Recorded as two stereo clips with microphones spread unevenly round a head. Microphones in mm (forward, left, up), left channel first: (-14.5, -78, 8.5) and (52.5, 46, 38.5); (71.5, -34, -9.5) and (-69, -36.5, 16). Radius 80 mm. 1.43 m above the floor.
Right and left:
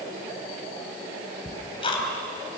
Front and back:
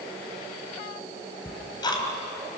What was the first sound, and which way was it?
Ticking, 60° right.